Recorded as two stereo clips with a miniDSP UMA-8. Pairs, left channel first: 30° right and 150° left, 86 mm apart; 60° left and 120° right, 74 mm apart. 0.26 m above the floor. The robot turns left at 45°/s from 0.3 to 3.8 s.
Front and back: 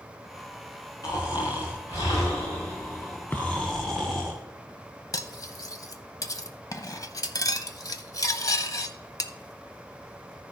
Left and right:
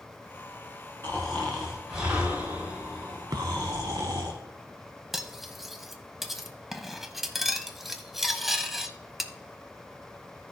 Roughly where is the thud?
Right.